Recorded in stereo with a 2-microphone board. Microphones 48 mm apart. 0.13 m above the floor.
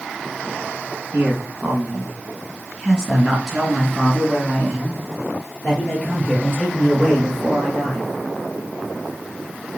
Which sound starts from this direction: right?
A man speaking, at 1.1 s.